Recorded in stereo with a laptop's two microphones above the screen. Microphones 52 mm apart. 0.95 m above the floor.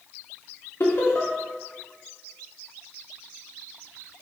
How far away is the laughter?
About 1.9 m.